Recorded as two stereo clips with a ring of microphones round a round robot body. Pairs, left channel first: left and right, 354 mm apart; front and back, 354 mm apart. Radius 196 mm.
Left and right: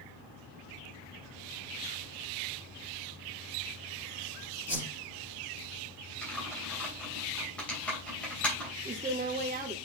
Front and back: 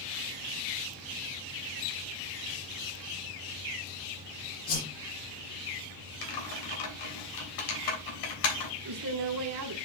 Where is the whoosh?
5° right, 4 m.